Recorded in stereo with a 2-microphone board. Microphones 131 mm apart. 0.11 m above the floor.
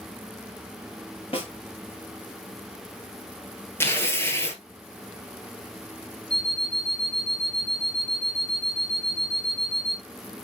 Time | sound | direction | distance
1.3 | a snare drum | 50° left (ahead or behind) | 3 m
3.8 | tearing paper | 20° left (ahead or behind) | 1.6 m
6.3 | an alarm clock | 10° left (ahead or behind) | 1.0 m